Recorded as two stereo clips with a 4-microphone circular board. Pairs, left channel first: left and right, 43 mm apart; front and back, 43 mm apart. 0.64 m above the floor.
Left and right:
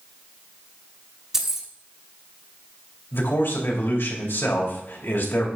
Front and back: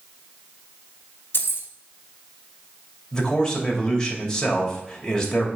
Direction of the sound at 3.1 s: 75° left.